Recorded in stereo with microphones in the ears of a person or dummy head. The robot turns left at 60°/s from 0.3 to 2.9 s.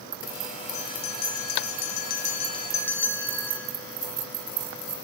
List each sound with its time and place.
0.7 s a bell: 140° left, 1.0 m; by 3.7 s 10° left, 1.0 m